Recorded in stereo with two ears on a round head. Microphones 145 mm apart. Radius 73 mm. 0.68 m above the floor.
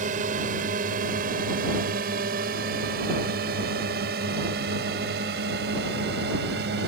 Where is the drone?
50° right (ahead or behind); by 6.9 s 70° right (ahead or behind).